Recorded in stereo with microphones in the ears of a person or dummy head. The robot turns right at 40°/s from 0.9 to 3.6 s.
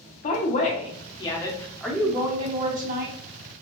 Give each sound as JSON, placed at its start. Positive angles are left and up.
{"t": 0.2, "sound": "a woman speaking", "azimuth_deg": 140, "distance_m": 0.8}